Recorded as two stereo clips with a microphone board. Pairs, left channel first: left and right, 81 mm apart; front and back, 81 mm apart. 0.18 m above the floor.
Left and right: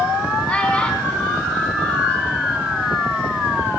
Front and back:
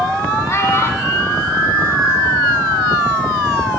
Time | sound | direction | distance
0.5 | a child speaking | 25° left | 1.4 m